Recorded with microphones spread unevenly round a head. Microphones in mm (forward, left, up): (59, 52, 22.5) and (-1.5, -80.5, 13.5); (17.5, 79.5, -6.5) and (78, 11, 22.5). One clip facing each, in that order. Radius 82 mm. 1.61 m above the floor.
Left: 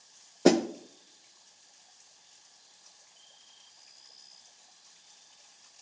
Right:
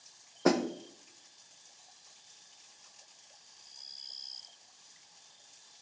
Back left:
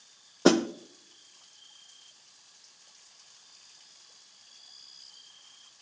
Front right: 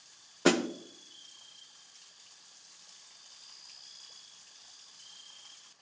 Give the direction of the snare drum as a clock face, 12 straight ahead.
10 o'clock.